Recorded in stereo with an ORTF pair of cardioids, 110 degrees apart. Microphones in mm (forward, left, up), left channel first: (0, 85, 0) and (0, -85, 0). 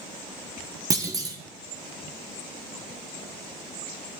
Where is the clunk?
20° right, 0.9 m.